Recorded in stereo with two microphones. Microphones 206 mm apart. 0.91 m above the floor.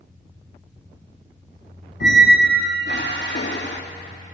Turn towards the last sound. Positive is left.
turn(degrees=60)  # may be behind; listen again after turning